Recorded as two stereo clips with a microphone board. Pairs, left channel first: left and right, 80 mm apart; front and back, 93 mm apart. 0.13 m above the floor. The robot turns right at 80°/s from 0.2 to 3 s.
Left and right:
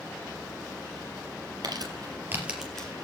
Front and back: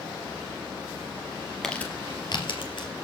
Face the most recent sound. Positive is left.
turn(degrees=25)